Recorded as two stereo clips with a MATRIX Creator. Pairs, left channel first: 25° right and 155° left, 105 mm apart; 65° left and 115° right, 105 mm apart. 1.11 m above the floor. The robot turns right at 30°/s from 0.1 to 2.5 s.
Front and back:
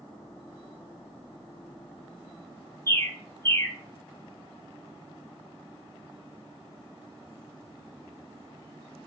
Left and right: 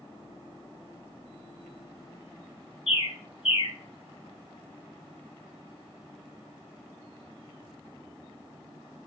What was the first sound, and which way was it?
A bird, 45° left.